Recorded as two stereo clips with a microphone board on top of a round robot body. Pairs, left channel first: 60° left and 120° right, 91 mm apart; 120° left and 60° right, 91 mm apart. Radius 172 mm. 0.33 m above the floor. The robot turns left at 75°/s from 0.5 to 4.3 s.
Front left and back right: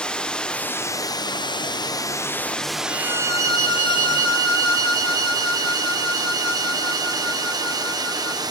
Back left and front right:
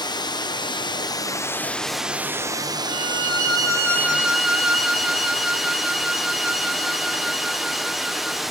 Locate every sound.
0.0 s running water: 140° left, 0.9 m; by 8.5 s 145° right, 0.9 m
2.9 s a violin: 130° left, 3 m; by 8.4 s 20° left, 3 m